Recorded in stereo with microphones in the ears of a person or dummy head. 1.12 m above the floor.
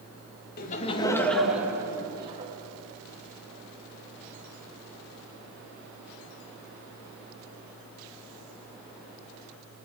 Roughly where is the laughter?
Left.